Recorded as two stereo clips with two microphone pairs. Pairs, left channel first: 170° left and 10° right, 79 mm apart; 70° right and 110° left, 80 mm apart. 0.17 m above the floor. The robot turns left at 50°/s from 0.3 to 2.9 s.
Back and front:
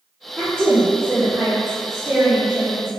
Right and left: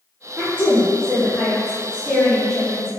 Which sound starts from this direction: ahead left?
A woman speaking, at 0.4 s.